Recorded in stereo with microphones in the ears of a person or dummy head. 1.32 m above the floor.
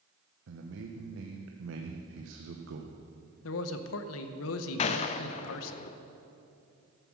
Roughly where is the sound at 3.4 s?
Left.